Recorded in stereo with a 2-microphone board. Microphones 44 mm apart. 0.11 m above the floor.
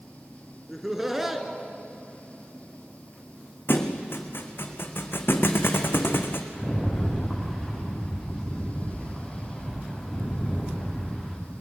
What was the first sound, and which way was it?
Laughter, 10° right (ahead or behind).